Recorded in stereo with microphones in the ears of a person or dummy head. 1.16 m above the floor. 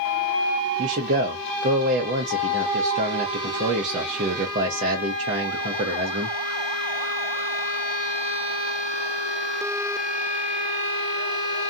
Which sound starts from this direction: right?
A man speaking, at 0.8 s.